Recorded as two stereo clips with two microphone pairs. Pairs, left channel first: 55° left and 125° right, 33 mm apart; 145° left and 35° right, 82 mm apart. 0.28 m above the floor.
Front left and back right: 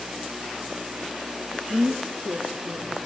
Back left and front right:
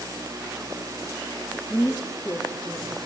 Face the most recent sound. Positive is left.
turn(degrees=-130)